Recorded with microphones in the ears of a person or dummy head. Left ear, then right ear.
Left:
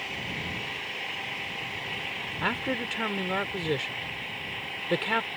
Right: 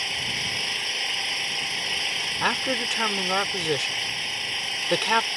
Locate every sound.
0.0 s an engine running: 85° right
2.4 s a man speaking: 35° right (ahead or behind)